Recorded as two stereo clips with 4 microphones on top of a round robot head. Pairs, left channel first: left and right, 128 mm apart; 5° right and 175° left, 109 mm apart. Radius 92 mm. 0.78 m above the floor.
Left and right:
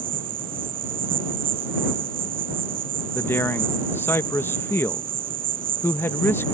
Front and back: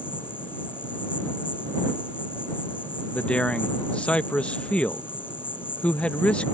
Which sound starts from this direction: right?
An insect, at 0.0 s.